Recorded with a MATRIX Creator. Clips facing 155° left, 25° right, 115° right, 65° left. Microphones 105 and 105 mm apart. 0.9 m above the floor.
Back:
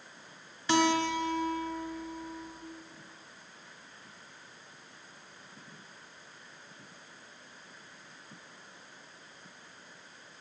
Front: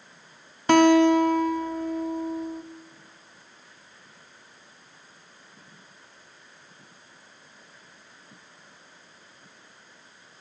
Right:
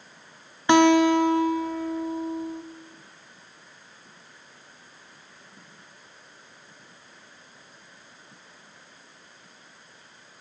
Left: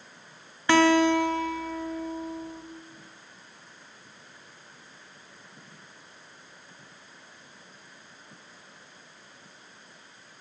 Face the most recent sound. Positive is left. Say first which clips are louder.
# front 11 dB, right 3 dB
turn(degrees=-45)